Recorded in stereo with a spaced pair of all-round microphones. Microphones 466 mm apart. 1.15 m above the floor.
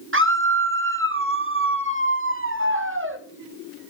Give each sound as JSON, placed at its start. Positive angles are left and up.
{"t": 0.1, "sound": "a scream", "side_deg": -25, "distance_m": 1.3}